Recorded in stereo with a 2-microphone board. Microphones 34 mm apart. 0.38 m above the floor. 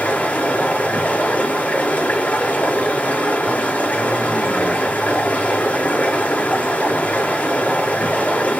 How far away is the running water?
About 5.5 m.